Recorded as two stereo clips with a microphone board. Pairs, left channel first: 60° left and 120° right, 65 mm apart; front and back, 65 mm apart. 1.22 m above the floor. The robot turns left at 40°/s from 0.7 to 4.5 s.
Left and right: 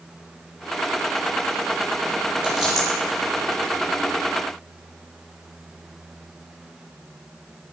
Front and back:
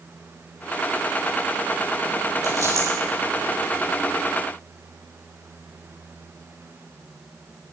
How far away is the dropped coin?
About 8 m.